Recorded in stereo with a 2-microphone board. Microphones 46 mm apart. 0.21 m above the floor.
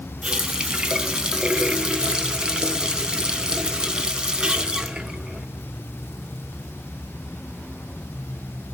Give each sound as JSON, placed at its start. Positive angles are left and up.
{"t": 0.2, "sound": "a running tap", "side_deg": -15, "distance_m": 1.0}